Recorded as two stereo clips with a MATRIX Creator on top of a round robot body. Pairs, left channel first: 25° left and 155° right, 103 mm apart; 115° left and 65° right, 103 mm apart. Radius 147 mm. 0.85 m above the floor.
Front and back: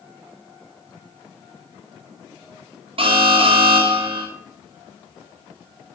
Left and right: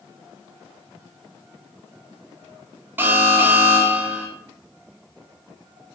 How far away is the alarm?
About 4 m.